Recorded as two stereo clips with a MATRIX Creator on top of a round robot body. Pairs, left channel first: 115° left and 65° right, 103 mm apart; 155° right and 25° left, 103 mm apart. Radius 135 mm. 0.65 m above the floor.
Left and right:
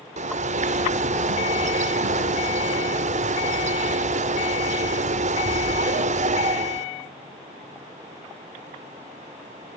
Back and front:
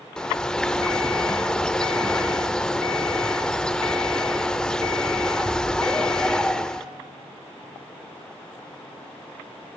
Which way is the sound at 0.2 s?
75° right.